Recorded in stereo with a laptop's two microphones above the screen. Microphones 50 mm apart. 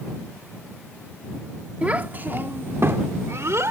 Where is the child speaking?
25° right (ahead or behind); by 3.7 s 65° right (ahead or behind).